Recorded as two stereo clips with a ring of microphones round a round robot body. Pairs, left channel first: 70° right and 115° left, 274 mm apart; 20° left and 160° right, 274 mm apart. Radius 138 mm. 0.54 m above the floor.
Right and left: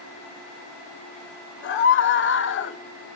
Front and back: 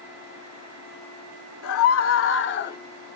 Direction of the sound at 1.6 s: 15° right.